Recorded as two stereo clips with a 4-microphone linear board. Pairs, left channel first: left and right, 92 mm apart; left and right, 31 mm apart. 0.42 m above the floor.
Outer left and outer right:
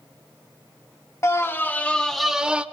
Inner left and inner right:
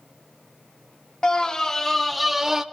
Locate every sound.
1.2 s a scream: 30° left (ahead or behind), 0.9 m; by 2.6 s 10° right (ahead or behind), 0.9 m